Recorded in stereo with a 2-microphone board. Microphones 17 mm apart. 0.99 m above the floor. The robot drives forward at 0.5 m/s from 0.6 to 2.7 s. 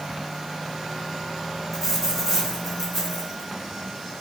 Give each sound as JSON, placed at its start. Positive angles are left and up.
{"t": 1.7, "sound": "a dropped coin", "side_deg": -10, "distance_m": 4.5}